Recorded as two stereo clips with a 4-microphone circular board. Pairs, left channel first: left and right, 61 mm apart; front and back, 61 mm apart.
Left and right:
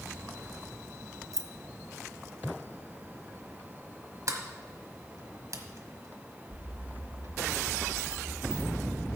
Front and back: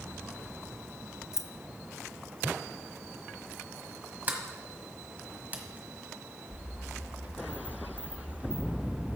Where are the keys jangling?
100° right, 0.5 m.